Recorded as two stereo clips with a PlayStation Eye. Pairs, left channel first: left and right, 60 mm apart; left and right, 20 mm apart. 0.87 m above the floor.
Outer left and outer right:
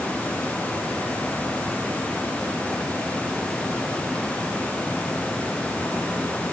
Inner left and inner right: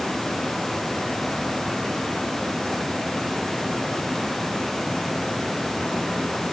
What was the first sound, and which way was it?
Only background noise.